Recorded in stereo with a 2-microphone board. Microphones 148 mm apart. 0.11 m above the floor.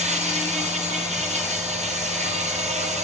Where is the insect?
50° right (ahead or behind), 1.1 m.